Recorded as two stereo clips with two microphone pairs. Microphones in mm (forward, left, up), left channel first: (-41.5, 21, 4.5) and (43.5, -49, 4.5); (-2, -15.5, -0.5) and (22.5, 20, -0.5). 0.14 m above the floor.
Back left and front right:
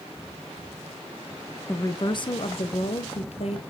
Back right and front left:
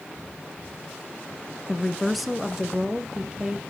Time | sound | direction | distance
1.7 | a woman speaking | 175° left | 1.1 m